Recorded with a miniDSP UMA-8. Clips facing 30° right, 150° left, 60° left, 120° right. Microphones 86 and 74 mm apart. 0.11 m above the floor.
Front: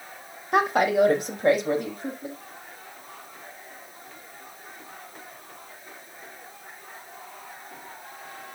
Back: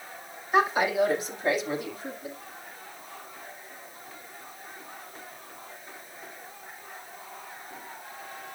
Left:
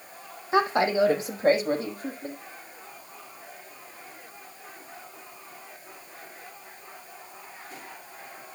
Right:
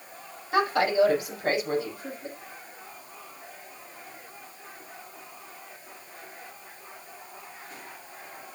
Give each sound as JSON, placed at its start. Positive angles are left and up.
{"t": 0.5, "sound": "a woman speaking", "azimuth_deg": -5, "distance_m": 4.5}